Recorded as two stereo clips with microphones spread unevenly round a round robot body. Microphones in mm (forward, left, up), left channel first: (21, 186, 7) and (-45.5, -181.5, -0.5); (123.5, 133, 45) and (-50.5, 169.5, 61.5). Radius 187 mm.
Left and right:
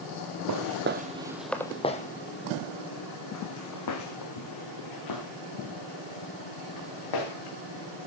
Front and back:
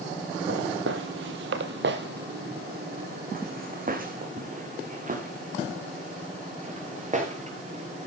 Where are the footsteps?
145° right, 1.1 m; by 8.1 s 115° left, 6 m.